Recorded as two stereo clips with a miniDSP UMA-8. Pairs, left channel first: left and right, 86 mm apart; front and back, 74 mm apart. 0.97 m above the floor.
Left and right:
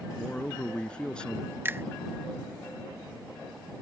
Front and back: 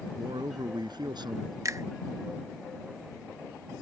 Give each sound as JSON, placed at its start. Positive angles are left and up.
{"t": 0.2, "sound": "a man speaking", "azimuth_deg": 165}
{"t": 1.6, "sound": "a finger snap", "azimuth_deg": -150}